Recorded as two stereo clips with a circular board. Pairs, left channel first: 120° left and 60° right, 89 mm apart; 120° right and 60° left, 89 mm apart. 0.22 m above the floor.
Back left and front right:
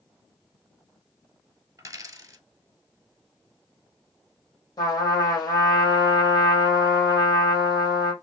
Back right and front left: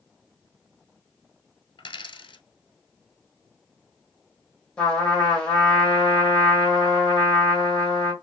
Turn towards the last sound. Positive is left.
turn(degrees=160)